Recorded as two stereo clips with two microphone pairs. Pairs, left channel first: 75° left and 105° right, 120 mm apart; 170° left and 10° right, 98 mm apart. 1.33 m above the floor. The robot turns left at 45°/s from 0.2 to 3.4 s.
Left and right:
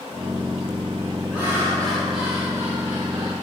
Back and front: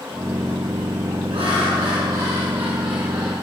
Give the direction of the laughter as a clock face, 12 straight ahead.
11 o'clock.